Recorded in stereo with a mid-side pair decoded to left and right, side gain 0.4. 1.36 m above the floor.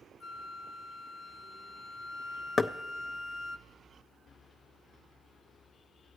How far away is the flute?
About 0.6 m.